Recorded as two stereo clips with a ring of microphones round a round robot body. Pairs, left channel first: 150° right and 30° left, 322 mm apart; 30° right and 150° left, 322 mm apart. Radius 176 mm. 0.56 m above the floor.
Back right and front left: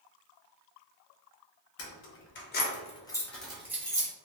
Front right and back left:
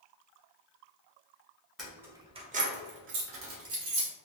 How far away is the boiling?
I don't hear boiling.